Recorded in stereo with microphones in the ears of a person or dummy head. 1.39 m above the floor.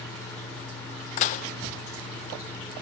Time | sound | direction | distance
1.2 | dishes clattering | 40° left (ahead or behind) | 0.6 m